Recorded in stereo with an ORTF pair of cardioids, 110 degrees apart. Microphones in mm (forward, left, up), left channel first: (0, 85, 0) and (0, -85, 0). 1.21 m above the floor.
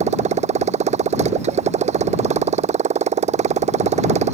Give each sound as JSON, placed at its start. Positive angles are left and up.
{"t": 0.0, "sound": "a motorcycle", "azimuth_deg": -40}